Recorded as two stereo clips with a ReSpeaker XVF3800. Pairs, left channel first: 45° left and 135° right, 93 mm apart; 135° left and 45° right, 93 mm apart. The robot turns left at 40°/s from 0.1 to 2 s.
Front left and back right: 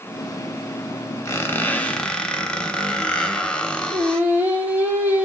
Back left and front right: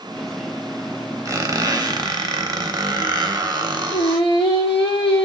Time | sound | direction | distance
1.2 | a squeak | straight ahead | 0.6 m
3.9 | singing | 155° left | 1.4 m